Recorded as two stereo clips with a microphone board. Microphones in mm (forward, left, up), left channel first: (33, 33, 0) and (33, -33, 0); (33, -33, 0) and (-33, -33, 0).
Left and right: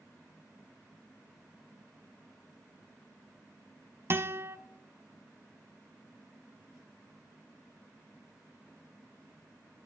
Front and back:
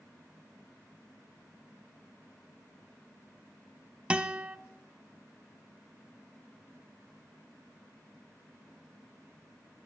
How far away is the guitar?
About 1.0 m.